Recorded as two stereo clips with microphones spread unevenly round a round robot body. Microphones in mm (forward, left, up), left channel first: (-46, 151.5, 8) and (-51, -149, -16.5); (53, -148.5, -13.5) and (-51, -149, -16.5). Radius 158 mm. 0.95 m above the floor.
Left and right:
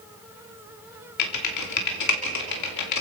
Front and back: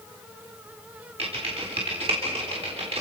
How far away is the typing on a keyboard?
About 3 m.